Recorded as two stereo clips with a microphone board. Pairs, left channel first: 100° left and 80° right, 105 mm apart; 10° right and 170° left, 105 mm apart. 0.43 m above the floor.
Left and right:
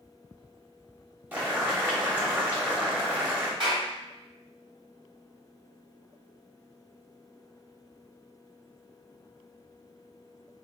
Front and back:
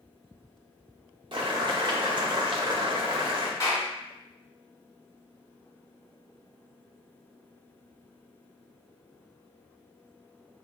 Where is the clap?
65° right, 1.7 m.